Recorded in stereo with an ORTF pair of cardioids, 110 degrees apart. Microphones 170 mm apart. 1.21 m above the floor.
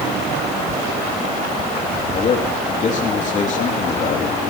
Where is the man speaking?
45° left, 3 m.